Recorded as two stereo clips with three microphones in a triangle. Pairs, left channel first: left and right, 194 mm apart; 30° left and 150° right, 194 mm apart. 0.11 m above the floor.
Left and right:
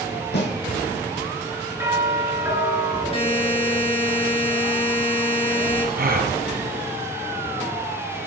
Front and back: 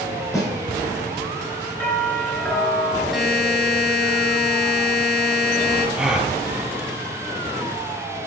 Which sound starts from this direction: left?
A snare drum, at 0.3 s.